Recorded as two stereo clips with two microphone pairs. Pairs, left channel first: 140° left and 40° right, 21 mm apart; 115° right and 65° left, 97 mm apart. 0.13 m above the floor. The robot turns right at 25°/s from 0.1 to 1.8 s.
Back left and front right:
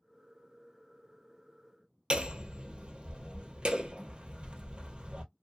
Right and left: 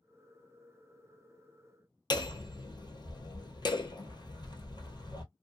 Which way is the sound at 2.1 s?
75° right.